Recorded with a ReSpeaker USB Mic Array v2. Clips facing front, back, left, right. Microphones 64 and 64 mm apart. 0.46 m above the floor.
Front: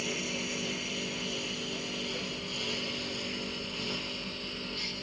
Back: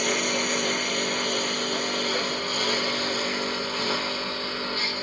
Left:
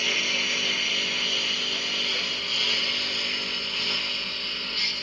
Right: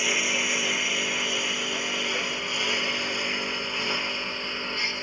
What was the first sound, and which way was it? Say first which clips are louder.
A lawn mower: back 10 dB, right 2 dB; 165° right.